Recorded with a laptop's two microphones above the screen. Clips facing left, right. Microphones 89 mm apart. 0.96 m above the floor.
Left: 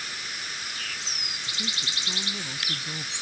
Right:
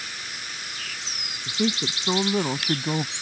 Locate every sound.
1.5 s a woman speaking: 65° right (ahead or behind); by 3.1 s 60° right (ahead or behind)